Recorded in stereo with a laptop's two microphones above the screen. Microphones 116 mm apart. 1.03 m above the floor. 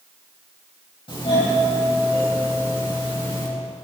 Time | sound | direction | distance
1.1 | a doorbell | 50° left (ahead or behind) | 8 m